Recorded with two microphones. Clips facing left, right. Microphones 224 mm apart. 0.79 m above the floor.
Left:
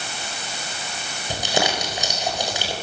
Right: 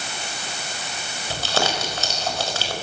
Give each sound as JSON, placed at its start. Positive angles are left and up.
{"t": 1.3, "sound": "crumpling", "side_deg": 15, "distance_m": 4.5}